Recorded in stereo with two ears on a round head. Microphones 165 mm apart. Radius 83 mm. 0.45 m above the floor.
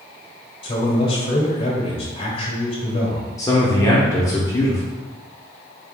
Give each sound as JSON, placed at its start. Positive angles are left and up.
{"t": 0.6, "sound": "a man speaking", "side_deg": 30, "distance_m": 1.3}
{"t": 3.4, "sound": "a man speaking", "side_deg": 20, "distance_m": 0.7}